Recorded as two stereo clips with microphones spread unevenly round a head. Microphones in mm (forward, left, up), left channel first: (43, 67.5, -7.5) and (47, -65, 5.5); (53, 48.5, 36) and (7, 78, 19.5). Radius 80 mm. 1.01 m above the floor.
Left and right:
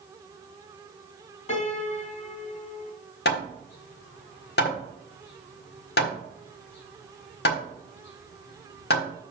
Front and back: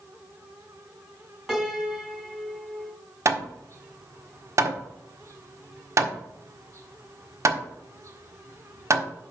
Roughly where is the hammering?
Behind left.